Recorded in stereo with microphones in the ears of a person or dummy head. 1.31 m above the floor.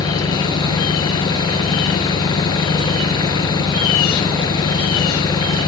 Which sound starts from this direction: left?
An engine running, at 0.0 s.